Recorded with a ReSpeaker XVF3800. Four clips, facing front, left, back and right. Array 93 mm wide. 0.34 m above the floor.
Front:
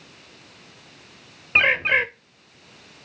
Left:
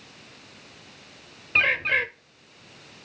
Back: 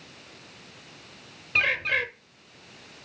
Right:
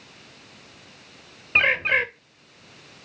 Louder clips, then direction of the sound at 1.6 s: Right 2 dB, front 6 dB; 30° right.